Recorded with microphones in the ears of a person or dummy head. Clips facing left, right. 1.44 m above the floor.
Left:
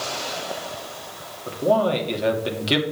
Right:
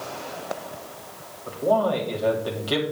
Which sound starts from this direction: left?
A man speaking, at 1.5 s.